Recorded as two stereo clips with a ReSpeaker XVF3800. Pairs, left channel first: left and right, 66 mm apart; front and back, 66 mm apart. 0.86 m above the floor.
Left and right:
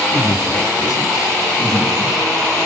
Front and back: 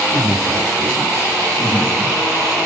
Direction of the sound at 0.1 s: 115° left.